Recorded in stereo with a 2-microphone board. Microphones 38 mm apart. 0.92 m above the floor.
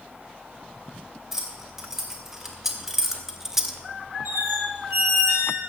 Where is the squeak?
70° right (ahead or behind), 4.5 m.